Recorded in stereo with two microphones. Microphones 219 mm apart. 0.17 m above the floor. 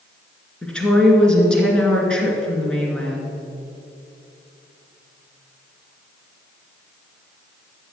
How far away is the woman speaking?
About 2.5 m.